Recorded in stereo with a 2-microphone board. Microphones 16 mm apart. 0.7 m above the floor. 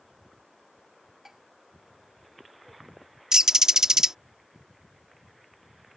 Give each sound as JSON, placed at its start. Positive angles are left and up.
{"t": 1.2, "sound": "dishes clattering", "side_deg": -20}
{"t": 3.3, "sound": "a bird", "side_deg": -35}